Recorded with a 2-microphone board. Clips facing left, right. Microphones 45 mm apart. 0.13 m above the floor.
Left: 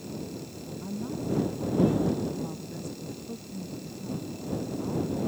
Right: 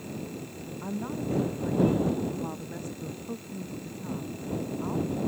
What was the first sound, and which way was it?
A woman speaking, 35° right (ahead or behind).